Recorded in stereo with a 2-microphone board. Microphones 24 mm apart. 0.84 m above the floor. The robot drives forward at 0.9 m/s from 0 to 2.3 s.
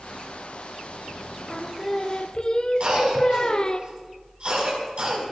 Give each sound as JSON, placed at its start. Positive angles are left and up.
{"t": 1.5, "sound": "singing", "side_deg": 20, "distance_m": 1.0}
{"t": 2.8, "sound": "a cough", "side_deg": -50, "distance_m": 5.5}